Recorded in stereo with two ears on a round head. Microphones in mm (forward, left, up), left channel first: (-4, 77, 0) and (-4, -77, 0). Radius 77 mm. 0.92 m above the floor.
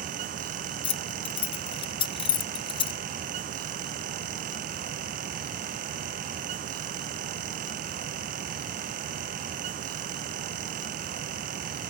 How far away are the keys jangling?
About 0.6 m.